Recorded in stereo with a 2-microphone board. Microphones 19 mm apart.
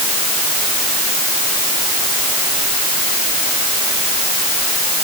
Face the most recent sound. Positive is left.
No sound to turn to.